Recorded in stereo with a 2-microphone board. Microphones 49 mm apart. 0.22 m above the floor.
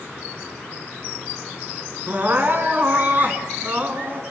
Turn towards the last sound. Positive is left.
turn(degrees=-40)  # may be behind; listen again after turning